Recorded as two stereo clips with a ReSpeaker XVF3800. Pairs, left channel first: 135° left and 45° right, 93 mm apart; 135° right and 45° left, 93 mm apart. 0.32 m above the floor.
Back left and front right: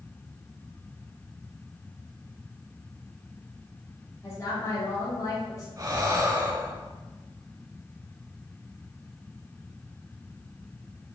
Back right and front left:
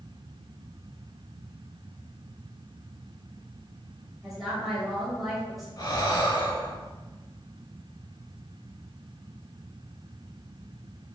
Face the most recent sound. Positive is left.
turn(degrees=-95)